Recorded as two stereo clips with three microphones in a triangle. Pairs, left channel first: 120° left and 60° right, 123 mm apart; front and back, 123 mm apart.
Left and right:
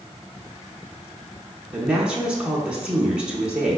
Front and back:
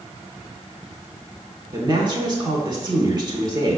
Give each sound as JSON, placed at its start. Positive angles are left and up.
{"t": 1.7, "sound": "a woman speaking", "azimuth_deg": -140, "distance_m": 1.1}